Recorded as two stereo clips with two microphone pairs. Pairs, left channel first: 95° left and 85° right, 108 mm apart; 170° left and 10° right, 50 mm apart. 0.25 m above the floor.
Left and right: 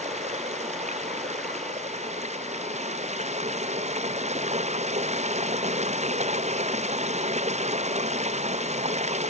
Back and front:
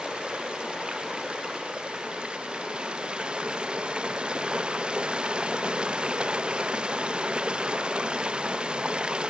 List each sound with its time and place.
0.0 s running water: 80° right